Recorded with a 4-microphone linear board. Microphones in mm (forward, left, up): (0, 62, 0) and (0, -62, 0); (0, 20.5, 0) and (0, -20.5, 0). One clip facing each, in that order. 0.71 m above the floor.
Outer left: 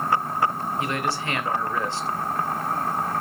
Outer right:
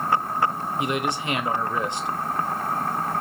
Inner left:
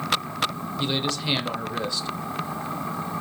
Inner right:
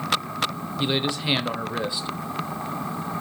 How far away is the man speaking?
About 0.6 m.